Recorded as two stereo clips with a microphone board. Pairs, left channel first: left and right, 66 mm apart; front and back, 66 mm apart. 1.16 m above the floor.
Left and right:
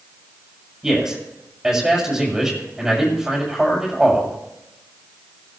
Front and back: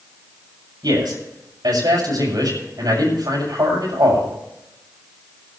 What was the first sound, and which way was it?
A man speaking, 170° right.